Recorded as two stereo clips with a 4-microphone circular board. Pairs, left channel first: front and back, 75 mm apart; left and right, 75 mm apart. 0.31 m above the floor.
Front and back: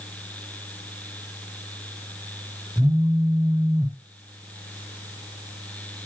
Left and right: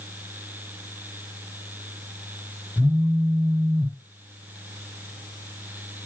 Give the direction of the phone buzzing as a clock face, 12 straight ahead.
7 o'clock.